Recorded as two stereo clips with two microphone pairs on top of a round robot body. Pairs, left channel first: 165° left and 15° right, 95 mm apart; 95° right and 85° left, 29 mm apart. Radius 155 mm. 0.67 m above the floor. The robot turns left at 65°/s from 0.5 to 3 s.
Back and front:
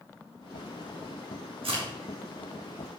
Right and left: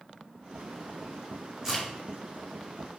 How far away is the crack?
About 2.5 m.